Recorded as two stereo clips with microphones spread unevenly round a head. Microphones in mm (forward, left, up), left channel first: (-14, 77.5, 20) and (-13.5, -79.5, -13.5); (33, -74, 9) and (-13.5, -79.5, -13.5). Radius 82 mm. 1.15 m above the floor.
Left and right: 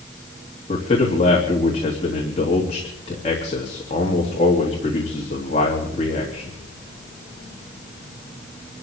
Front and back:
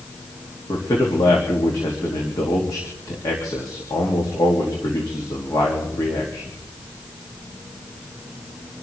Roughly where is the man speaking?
Ahead left.